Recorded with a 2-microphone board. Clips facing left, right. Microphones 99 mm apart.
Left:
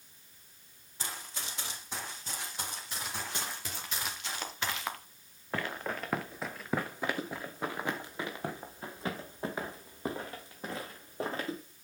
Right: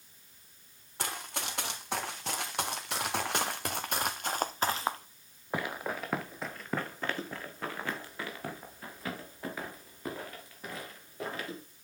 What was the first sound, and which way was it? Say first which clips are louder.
Running footsteps: right 5 dB; 75° right (ahead or behind).